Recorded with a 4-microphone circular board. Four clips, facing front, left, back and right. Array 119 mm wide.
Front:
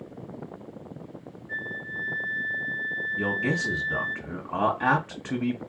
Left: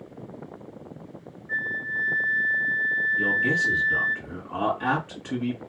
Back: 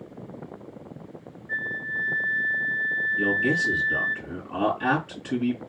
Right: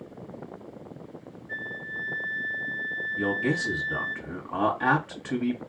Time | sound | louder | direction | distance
1.5 | a flute | left 7 dB, back 4 dB | 120° left | 1.3 m
3.2 | a man speaking | right 1 dB, back 3 dB | 15° right | 1.7 m